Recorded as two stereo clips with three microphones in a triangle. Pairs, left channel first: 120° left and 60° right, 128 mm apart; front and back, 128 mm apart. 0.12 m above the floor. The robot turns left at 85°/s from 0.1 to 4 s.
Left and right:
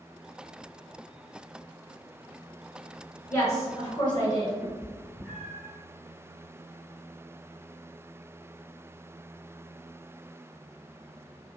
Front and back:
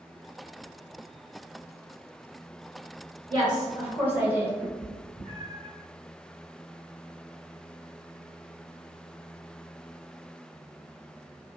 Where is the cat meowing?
140° right, 1.2 m.